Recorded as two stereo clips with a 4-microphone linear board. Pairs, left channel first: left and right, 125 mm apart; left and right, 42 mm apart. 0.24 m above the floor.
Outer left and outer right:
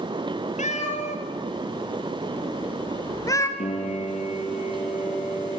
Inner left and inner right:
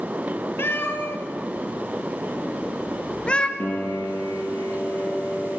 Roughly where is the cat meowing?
Left.